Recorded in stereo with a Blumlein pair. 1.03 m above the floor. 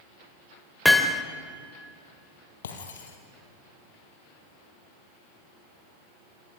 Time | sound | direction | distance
0.8 | hammering | 5° left | 1.7 m
2.6 | breaking glass | 65° left | 4 m